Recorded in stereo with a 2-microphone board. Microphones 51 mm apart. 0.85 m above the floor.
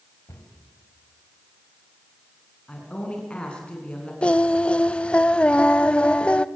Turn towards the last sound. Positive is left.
turn(degrees=20)  # may be behind; listen again after turning